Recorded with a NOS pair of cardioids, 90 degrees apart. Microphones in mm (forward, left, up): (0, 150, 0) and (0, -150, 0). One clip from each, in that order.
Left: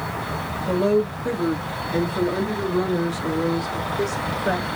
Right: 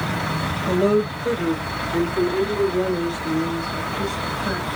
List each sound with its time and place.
0.7 s a woman speaking: 15° right, 1.5 m; by 4.7 s 60° left, 3 m